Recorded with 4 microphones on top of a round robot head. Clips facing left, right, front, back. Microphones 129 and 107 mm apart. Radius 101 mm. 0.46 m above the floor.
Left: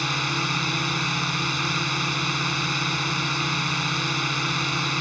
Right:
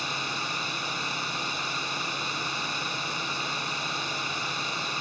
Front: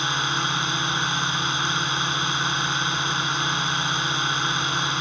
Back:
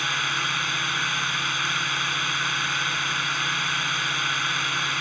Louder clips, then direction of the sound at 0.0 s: Left 6 dB, front 3 dB; 70° left.